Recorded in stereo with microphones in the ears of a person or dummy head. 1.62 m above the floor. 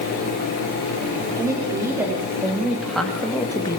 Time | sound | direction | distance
1.4 | a woman speaking | 15° right (ahead or behind) | 5 m